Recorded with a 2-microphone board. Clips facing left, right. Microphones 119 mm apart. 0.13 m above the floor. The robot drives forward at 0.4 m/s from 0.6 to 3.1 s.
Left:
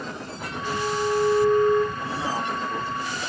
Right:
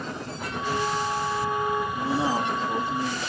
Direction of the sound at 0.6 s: 5° right (ahead or behind).